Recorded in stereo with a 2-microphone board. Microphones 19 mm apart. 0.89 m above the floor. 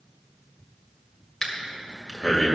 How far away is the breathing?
About 1.8 m.